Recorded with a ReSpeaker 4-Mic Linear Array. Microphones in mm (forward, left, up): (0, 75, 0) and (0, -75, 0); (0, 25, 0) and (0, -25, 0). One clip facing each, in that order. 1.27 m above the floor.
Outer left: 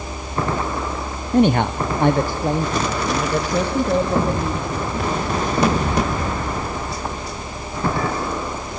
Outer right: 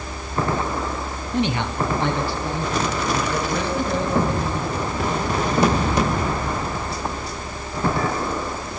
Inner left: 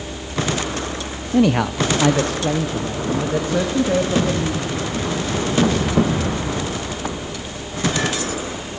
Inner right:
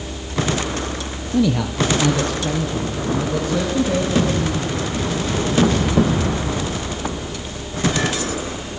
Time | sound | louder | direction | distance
1.3 | a man speaking | outer left 7 dB, inner left 2 dB | 45° left (ahead or behind) | 0.7 m